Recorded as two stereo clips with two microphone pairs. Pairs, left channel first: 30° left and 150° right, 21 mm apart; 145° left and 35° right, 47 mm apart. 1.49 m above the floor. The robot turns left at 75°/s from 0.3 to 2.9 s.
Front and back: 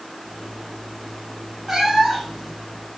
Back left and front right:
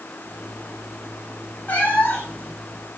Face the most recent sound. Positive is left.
turn(degrees=65)